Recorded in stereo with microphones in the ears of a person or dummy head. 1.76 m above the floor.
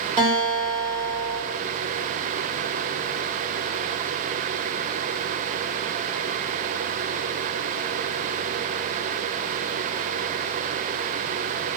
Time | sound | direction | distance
0.2 | a guitar | 30° right (ahead or behind) | 1.2 m